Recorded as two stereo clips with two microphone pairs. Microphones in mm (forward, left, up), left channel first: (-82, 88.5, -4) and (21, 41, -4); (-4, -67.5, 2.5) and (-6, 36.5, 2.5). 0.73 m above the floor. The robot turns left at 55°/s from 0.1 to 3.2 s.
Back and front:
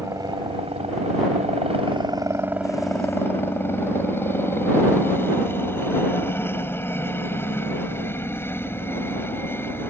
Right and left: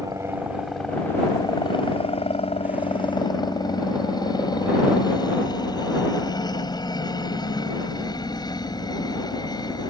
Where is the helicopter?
35° left; by 9.9 s 135° right.